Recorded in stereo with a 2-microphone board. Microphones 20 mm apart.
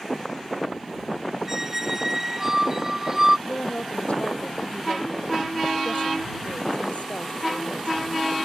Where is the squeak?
20° right (ahead or behind).